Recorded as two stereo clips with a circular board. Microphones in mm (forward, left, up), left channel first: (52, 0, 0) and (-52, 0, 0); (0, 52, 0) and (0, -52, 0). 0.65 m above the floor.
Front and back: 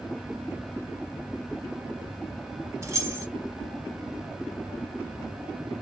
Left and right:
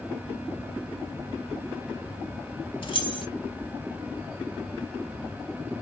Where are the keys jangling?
120° left, 0.9 m.